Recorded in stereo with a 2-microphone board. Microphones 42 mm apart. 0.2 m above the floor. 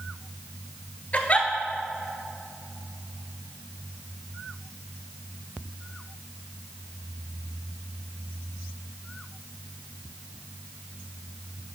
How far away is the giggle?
About 0.9 m.